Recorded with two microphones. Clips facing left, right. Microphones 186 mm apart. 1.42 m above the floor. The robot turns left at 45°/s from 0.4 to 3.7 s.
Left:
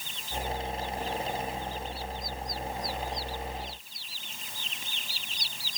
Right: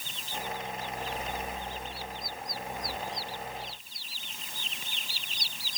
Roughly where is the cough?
No cough in this recording.